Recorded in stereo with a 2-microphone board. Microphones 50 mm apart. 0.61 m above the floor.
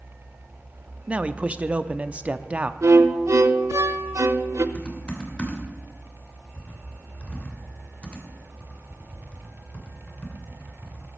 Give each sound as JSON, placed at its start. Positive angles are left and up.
{"t": 1.1, "sound": "a man speaking", "side_deg": -25, "distance_m": 0.6}
{"t": 2.8, "sound": "a violin", "side_deg": -75, "distance_m": 0.7}
{"t": 4.8, "sound": "typing on a keyboard", "side_deg": 25, "distance_m": 2.5}